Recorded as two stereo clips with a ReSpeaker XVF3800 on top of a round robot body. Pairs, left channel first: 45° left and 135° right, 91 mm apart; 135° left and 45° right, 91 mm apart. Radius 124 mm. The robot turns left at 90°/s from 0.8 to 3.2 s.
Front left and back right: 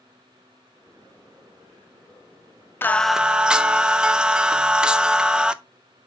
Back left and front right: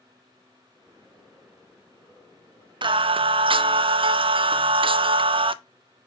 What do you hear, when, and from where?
2.8 s singing: 20° right, 0.6 m; by 5.5 s 55° right, 0.6 m